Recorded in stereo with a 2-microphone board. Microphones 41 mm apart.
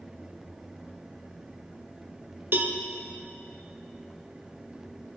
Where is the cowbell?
55° right (ahead or behind), 0.7 m.